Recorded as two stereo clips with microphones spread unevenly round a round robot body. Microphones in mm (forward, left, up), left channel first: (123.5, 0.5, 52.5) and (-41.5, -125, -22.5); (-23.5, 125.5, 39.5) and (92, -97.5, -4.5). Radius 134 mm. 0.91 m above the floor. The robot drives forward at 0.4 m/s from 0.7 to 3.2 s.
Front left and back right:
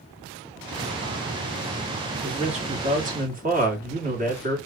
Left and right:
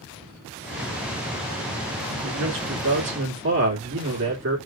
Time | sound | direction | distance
2.2 | a man speaking | 90° right | 1.8 m